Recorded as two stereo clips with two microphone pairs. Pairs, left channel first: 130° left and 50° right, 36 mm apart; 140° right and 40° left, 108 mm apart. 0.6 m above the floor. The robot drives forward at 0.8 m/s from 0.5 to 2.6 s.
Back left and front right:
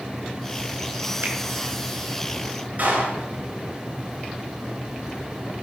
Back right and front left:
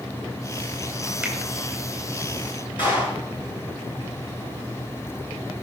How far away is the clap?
About 6 m.